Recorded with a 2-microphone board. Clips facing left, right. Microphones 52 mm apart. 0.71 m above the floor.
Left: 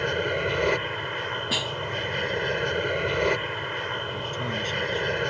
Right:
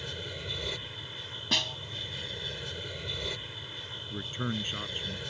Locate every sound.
0.0 s an aircraft: 55° left (ahead or behind)
1.5 s a snare drum: 5° left (ahead or behind)
4.1 s a man speaking: 15° right (ahead or behind)